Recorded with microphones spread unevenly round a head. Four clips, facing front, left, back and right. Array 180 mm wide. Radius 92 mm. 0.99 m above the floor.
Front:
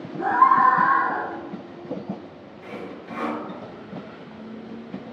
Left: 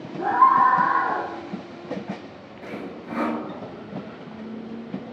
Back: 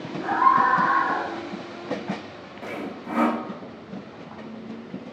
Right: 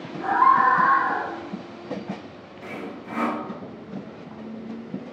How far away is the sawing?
About 0.9 m.